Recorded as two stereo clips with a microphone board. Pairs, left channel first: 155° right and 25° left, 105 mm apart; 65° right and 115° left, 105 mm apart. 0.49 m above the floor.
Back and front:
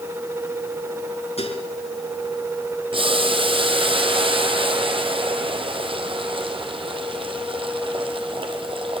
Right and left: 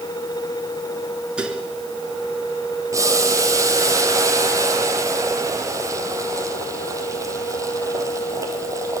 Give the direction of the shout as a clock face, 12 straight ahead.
No shout in this recording.